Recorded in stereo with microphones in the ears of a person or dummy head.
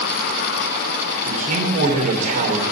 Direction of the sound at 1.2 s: 40° right (ahead or behind).